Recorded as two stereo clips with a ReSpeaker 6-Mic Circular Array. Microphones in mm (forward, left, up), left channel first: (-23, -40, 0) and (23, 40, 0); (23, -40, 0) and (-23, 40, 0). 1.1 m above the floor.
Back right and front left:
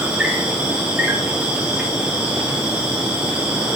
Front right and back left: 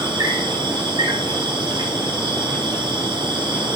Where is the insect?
135° left, 3.5 m.